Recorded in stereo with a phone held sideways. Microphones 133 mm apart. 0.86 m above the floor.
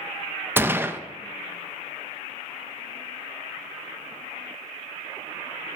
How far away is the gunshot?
About 0.6 m.